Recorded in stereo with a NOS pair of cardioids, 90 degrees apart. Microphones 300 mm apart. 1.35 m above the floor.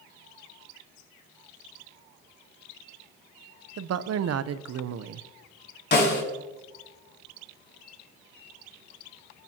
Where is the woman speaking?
55° right, 0.9 m.